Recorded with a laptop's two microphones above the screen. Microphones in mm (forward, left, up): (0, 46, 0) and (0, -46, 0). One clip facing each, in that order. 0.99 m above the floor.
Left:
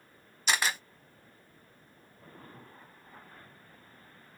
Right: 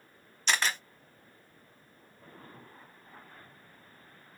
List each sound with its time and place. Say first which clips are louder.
0.5 s a camera shutter: even; 5° left (ahead or behind), 1.0 m